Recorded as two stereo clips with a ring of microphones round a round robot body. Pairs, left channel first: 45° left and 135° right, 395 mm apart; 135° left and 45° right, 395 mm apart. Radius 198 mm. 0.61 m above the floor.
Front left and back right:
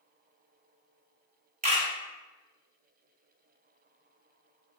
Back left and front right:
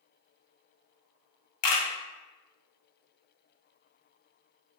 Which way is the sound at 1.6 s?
155° left.